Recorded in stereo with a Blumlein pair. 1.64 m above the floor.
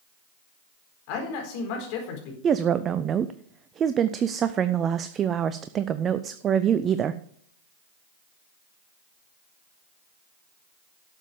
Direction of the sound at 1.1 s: 45° left.